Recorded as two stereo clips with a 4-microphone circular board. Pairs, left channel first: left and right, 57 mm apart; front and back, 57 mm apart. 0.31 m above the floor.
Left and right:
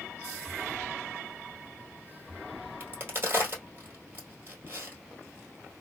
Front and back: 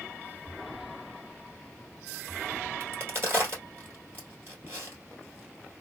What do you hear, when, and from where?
2.8 s a crack: 140° right, 1.8 m